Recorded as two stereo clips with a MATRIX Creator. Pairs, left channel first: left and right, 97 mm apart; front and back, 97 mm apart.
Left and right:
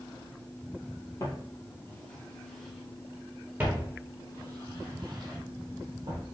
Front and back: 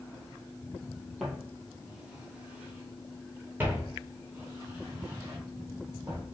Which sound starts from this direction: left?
Footsteps, at 1.2 s.